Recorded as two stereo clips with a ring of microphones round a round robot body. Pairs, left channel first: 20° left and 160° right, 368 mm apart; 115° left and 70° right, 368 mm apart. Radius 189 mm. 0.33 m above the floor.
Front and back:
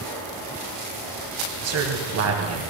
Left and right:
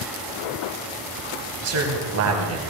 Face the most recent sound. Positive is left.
turn(degrees=-110)